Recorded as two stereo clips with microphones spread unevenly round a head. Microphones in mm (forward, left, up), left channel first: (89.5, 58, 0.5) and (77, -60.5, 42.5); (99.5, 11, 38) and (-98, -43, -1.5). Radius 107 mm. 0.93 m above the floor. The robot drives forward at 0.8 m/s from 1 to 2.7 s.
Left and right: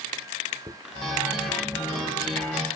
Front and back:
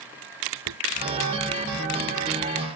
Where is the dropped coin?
165° right.